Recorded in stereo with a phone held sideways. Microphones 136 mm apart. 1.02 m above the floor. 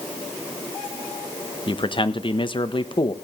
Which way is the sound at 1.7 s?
40° left (ahead or behind).